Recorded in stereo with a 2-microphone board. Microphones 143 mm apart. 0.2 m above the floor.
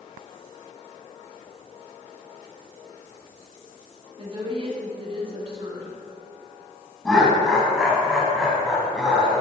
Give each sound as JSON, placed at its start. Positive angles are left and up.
{"t": 4.2, "sound": "a woman speaking", "side_deg": -40, "distance_m": 1.6}
{"t": 7.0, "sound": "laughter", "side_deg": 0, "distance_m": 1.2}